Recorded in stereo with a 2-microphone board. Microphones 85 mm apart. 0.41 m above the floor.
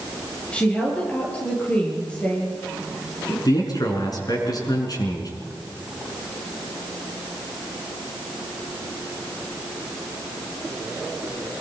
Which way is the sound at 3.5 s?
50° left (ahead or behind).